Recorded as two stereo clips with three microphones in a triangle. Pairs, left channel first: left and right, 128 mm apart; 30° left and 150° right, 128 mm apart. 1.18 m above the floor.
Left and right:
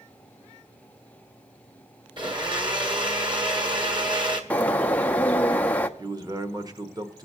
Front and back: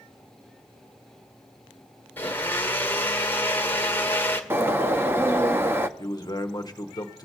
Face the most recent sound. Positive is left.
turn(degrees=-30)